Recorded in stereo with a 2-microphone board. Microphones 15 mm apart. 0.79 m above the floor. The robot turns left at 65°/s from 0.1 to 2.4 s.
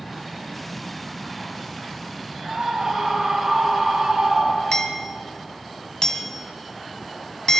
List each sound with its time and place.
2.5 s a scream: 65° right (ahead or behind), 7 m
4.7 s hammering: 50° left (ahead or behind), 2 m